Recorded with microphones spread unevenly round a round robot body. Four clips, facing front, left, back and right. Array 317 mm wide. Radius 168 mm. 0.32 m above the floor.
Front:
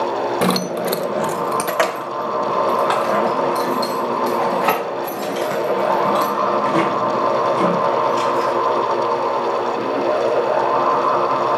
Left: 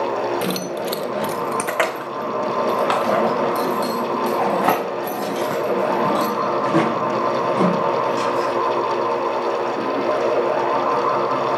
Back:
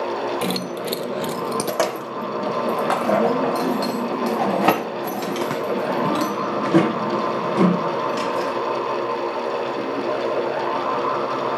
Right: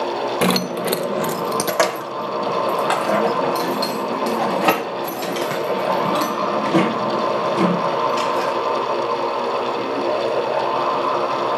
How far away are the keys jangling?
About 0.8 m.